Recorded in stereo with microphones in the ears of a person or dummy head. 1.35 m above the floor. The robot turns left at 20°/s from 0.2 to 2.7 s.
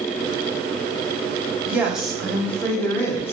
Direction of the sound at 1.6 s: 10° right (ahead or behind).